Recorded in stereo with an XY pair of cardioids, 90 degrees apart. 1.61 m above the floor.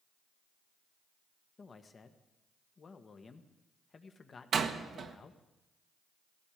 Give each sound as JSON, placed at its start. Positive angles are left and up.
{"t": 1.6, "sound": "a man speaking", "azimuth_deg": 40, "distance_m": 1.6}
{"t": 4.5, "sound": "a door slam", "azimuth_deg": -60, "distance_m": 1.4}